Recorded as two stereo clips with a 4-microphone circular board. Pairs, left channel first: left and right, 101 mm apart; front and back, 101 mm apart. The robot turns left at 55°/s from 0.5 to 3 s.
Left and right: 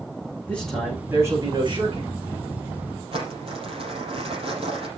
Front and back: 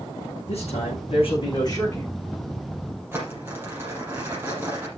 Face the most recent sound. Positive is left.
turn(degrees=-115)